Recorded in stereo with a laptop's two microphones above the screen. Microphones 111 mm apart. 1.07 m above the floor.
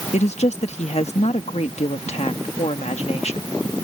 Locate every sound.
0.1 s a woman speaking: 75° left (ahead or behind)